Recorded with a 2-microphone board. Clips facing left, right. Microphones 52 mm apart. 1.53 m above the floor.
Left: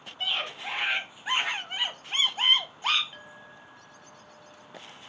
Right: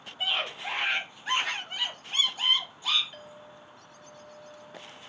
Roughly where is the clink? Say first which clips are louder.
Even; centre.